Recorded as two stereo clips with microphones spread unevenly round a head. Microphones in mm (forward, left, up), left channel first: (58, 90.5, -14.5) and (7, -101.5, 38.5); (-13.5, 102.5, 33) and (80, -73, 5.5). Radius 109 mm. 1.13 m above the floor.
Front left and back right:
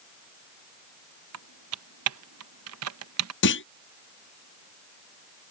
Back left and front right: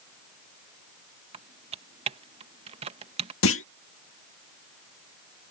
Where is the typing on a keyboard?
125° right.